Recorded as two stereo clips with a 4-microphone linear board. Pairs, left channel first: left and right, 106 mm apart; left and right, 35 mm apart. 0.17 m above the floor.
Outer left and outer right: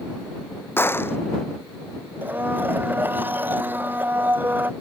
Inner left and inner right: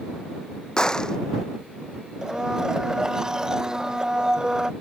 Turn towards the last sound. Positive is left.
turn(degrees=-20)  # may be behind; listen again after turning